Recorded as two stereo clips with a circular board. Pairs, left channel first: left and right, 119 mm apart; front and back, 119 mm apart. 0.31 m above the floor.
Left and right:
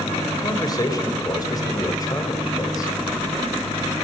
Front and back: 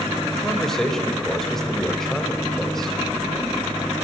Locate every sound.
0.3 s a man speaking: 85° left, 1.2 m